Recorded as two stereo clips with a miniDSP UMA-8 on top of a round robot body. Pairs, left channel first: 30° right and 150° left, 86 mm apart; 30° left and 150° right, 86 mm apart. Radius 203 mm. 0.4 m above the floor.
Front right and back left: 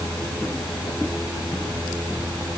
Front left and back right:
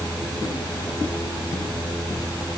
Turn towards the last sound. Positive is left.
No sound to turn to.